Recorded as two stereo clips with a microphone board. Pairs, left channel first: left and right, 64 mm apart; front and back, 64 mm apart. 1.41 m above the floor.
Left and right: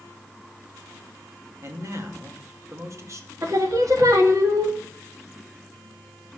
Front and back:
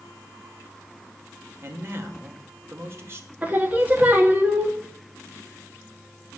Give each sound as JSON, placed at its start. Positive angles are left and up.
{"t": 1.6, "sound": "a man speaking", "azimuth_deg": -130, "distance_m": 2.0}
{"t": 3.4, "sound": "singing", "azimuth_deg": -120, "distance_m": 1.6}